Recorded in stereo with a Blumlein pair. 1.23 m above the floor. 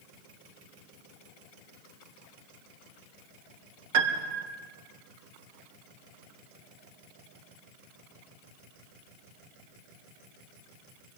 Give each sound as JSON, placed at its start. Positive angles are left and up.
{"t": 3.9, "sound": "a piano", "azimuth_deg": -55, "distance_m": 1.9}